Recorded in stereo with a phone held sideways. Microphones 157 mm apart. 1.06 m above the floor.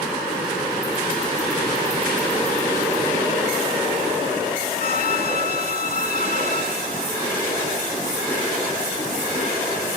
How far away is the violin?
About 1.5 m.